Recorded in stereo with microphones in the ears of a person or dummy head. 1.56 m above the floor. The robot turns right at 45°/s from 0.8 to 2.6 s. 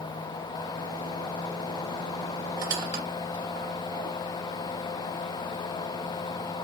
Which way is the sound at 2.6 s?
25° right (ahead or behind).